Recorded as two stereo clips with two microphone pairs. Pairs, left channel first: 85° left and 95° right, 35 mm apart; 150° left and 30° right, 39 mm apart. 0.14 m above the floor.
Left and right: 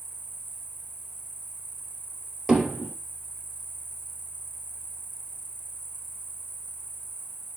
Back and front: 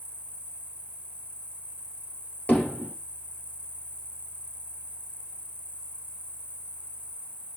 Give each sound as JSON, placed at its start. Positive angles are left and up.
{"t": 0.0, "sound": "an insect", "azimuth_deg": 105, "distance_m": 1.1}
{"t": 2.5, "sound": "hammering", "azimuth_deg": 180, "distance_m": 2.0}